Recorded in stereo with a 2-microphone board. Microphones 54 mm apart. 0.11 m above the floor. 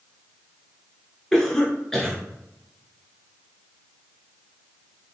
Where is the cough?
10° left (ahead or behind), 1.1 m.